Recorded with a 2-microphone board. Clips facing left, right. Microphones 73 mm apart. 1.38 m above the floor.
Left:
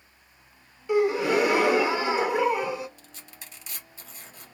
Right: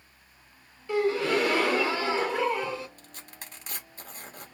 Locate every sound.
0.9 s a gasp: 15° left (ahead or behind), 0.6 m
3.0 s tearing paper: 50° right (ahead or behind), 1.0 m